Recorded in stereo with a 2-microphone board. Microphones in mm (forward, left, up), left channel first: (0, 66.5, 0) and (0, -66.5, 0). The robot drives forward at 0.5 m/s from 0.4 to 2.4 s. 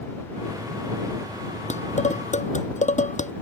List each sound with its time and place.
1.7 s dishes clattering: 75° left (ahead or behind)